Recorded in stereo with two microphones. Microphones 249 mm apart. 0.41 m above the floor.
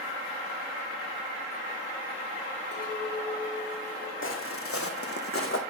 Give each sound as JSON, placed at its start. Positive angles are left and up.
{"t": 2.7, "sound": "a clink", "side_deg": 75, "distance_m": 4.0}
{"t": 4.2, "sound": "footsteps", "side_deg": 55, "distance_m": 0.9}